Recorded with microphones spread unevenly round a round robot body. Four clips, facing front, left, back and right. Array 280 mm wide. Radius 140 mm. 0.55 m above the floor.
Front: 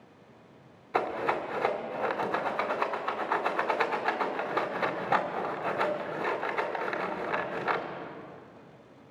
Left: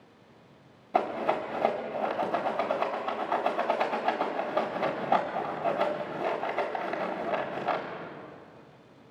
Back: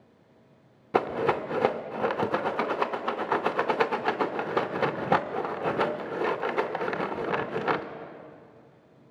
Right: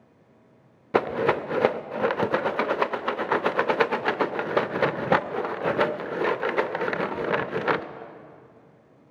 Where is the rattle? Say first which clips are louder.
Right 4 dB, back 4 dB; 115° right, 0.5 m.